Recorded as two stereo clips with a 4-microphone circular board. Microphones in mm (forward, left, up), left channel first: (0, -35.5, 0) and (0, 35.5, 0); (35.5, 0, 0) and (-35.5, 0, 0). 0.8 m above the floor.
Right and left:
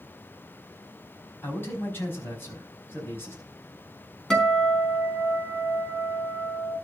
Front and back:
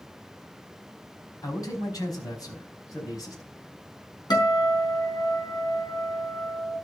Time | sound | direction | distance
1.4 | a man speaking | 30° right | 4.5 m
4.3 | a guitar | 5° right | 4.5 m